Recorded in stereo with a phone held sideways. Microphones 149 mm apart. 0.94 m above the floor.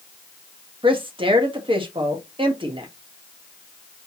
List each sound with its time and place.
0.8 s a woman speaking: 35° right (ahead or behind), 1.4 m